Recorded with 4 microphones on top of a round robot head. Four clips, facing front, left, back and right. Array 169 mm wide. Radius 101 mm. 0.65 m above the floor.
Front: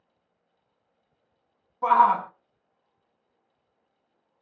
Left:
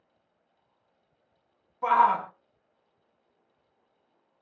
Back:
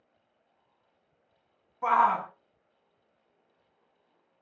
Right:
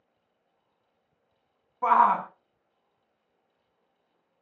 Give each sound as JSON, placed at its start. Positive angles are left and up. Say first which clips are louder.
{"t": 1.8, "sound": "a shout", "louder": "right 1 dB, front 5 dB", "azimuth_deg": -60, "distance_m": 0.6}